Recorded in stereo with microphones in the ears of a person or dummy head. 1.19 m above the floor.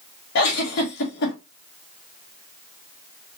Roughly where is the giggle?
Left.